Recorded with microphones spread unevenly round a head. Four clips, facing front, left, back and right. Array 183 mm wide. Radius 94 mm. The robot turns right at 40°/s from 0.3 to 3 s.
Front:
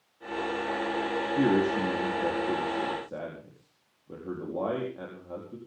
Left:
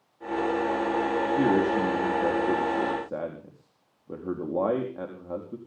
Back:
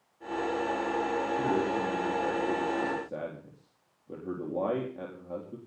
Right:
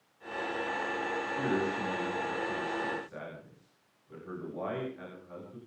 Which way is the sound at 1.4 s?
30° left.